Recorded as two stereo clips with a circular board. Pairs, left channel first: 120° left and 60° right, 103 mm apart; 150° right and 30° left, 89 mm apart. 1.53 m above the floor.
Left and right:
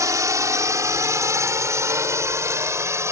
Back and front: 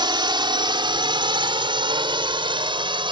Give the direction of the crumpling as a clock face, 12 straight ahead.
No crumpling in this recording.